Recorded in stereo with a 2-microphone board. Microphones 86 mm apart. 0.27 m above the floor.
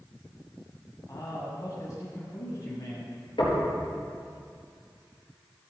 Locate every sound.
1.1 s a man speaking: 45° left (ahead or behind), 1.9 m
3.4 s knocking: 75° left (ahead or behind), 4.5 m